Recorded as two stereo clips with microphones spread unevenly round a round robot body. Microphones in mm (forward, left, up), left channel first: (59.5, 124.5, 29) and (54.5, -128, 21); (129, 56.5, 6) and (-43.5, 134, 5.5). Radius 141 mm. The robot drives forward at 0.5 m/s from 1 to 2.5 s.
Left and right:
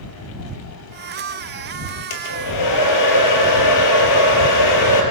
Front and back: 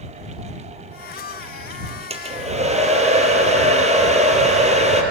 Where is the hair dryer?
100° left, 3.5 m.